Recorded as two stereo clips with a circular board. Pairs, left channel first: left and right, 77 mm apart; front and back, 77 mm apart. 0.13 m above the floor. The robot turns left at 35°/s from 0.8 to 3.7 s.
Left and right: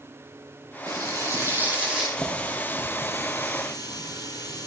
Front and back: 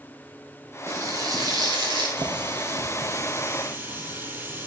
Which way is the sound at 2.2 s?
170° left.